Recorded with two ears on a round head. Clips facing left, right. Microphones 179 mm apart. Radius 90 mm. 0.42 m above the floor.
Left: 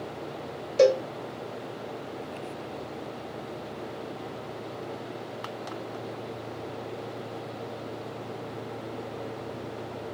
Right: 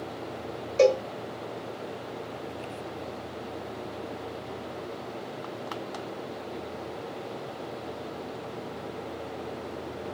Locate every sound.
0.8 s a cowbell: 10° left (ahead or behind), 1.2 m